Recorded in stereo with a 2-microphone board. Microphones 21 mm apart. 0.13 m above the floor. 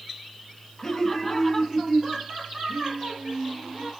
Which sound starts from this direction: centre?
Laughter, at 0.8 s.